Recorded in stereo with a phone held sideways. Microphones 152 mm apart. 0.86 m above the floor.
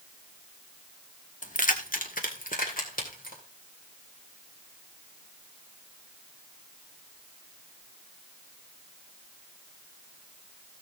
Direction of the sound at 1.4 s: 60° left (ahead or behind).